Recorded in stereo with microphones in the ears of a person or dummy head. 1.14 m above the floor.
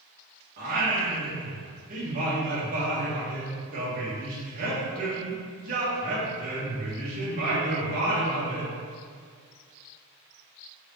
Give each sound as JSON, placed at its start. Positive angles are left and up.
{"t": 0.6, "sound": "singing", "side_deg": -45, "distance_m": 1.8}